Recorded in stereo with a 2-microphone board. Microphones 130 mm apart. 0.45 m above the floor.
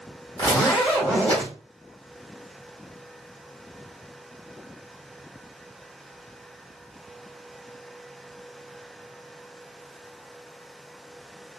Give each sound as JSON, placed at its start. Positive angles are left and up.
{"t": 0.4, "sound": "a zipper", "side_deg": 35, "distance_m": 1.5}